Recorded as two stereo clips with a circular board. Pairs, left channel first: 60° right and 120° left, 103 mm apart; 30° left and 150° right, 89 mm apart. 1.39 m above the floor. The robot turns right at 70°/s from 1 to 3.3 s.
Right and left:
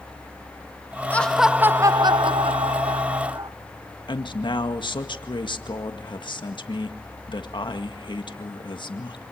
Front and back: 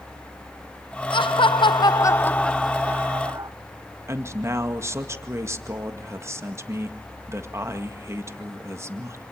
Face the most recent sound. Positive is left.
turn(degrees=-95)